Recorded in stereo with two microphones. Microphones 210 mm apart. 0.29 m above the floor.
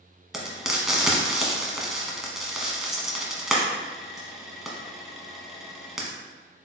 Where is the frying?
Centre (ahead or behind), 1.0 m.